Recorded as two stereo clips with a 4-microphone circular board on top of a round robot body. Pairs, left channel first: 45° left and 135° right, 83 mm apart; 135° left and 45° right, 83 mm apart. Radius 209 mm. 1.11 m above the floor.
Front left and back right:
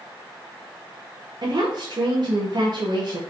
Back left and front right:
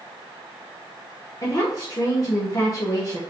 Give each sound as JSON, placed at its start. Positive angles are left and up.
{"t": 1.4, "sound": "a woman speaking", "azimuth_deg": -175, "distance_m": 1.5}